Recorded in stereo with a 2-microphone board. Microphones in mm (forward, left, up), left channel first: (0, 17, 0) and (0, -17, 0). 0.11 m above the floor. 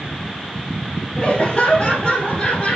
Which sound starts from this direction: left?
Laughter, at 1.2 s.